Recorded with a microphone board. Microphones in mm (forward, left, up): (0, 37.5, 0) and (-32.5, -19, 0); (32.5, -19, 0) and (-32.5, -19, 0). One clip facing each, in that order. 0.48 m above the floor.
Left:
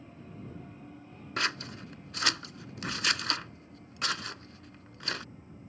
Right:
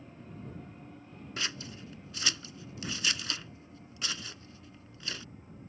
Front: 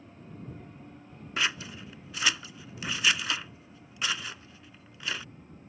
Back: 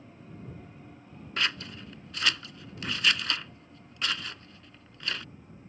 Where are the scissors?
80° left.